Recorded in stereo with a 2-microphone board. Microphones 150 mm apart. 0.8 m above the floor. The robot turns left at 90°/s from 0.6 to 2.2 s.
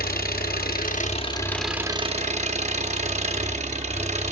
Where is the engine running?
95° left, 0.8 m; by 4.3 s 50° right, 0.8 m.